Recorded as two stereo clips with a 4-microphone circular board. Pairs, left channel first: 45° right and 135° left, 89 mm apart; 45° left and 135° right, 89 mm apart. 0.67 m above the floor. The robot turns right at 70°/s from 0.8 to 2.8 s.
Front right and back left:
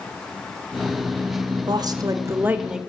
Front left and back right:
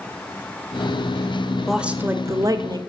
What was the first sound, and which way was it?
A woman speaking, 140° left.